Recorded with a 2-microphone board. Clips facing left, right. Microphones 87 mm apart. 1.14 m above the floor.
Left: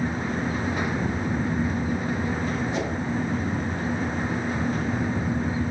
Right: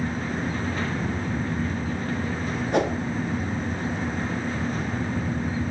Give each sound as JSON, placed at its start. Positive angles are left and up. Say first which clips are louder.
{"t": 2.7, "sound": "a whoosh", "louder": "right 5 dB", "side_deg": -60, "distance_m": 1.5}